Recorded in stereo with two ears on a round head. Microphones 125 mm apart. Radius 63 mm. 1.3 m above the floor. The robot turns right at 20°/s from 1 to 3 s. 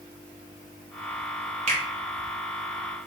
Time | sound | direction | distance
1.7 | a finger snap | 55° right (ahead or behind) | 1.1 m